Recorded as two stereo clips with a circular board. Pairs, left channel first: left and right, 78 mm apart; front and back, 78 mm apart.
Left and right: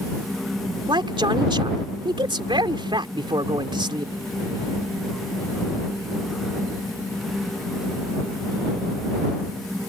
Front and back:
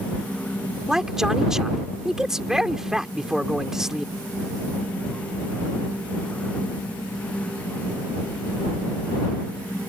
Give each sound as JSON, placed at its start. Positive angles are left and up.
{"t": 0.9, "sound": "a man speaking", "azimuth_deg": -95}